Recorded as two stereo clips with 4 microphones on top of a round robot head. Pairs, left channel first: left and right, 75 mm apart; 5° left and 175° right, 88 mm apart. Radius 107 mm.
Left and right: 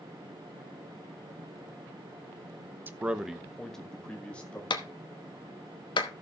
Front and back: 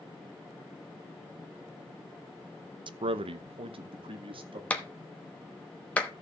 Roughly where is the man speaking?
Behind right.